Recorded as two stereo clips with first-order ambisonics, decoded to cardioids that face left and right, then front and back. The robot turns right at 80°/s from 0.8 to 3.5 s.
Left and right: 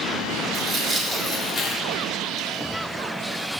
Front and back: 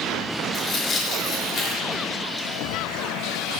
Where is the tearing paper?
15° right, 0.7 m; by 2.5 s 120° left, 0.7 m.